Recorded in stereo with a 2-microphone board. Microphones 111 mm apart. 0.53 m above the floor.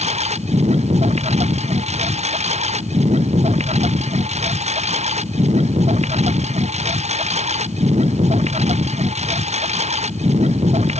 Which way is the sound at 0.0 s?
80° right.